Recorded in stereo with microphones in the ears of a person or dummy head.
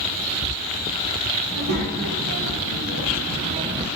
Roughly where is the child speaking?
Right.